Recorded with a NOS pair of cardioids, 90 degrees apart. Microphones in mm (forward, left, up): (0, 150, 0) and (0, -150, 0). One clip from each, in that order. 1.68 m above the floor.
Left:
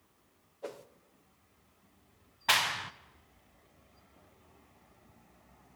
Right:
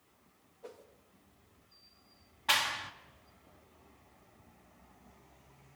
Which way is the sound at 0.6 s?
70° left.